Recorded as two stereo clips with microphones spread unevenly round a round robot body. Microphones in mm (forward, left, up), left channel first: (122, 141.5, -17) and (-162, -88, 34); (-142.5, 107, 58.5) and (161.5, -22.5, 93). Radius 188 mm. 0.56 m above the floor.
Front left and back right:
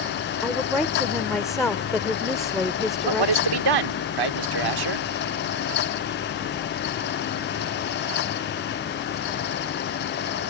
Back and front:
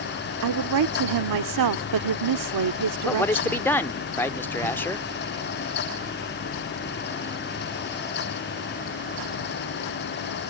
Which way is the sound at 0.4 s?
50° right.